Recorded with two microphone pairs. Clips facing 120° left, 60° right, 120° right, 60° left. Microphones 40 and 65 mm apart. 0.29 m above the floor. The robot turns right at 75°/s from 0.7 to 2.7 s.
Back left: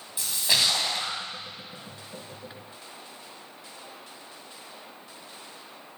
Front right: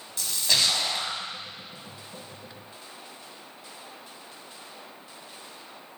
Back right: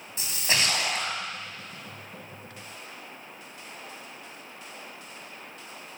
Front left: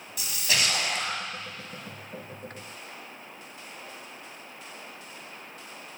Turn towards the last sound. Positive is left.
turn(degrees=-20)